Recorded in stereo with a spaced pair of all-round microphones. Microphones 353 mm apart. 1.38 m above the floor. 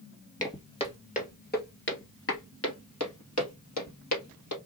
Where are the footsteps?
10° left (ahead or behind), 1.7 m; by 4.6 s 50° left (ahead or behind), 2.5 m.